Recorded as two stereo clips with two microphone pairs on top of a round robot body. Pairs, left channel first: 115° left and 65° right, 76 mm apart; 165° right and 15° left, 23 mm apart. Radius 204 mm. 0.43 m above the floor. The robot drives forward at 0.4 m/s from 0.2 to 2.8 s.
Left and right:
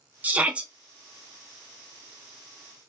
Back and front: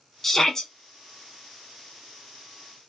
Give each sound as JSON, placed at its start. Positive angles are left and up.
{"t": 0.2, "sound": "a shout", "azimuth_deg": -115, "distance_m": 0.8}